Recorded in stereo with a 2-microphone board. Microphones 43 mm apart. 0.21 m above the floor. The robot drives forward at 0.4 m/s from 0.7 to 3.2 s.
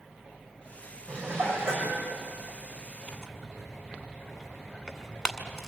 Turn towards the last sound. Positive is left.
turn(degrees=10)  # may be behind; listen again after turning